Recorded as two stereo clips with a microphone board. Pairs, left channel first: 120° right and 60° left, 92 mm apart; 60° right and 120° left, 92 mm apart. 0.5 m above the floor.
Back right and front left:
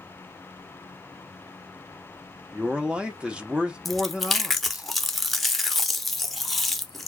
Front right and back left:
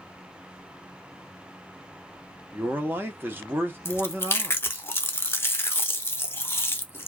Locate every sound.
2.5 s a man speaking: 120° left, 0.8 m
3.9 s chewing: 35° right, 0.6 m